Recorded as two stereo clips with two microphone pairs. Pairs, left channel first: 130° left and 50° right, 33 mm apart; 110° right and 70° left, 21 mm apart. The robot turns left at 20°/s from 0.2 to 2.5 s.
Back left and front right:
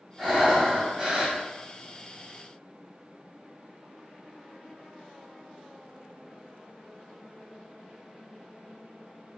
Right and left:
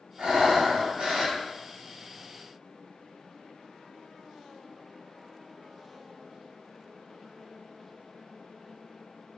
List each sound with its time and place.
0.2 s breathing: 30° left, 1.5 m; by 1.4 s 10° left, 1.5 m